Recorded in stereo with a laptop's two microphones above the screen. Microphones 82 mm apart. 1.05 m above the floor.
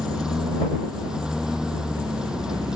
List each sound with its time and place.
0.0 s a lawn mower: 10° right (ahead or behind)